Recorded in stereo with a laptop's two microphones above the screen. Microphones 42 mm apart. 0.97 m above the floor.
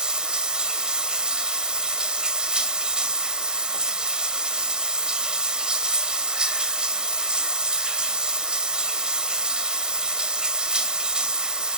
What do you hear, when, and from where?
0.0 s running water: 20° right (ahead or behind), 2.5 m